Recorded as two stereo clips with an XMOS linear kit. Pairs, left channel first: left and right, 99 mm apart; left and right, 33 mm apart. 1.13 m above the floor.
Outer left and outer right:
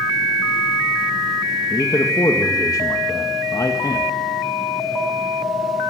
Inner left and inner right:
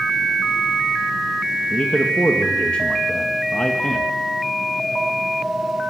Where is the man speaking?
35° left (ahead or behind), 1.9 m.